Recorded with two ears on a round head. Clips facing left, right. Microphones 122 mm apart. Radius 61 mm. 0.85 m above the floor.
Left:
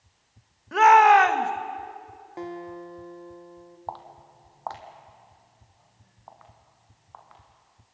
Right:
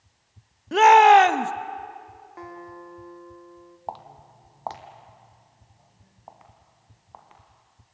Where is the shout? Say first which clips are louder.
Right 2 dB; 30° right (ahead or behind), 0.9 m.